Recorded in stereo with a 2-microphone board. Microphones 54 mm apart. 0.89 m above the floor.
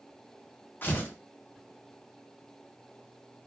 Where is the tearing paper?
35° left (ahead or behind), 0.8 m.